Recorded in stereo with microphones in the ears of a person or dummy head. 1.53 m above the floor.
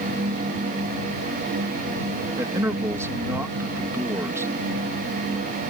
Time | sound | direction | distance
2.4 | a man speaking | 15° right (ahead or behind) | ?